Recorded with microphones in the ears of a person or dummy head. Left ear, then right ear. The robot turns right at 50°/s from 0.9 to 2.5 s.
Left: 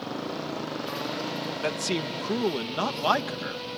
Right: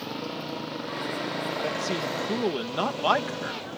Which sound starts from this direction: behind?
A motorcycle, at 0.0 s.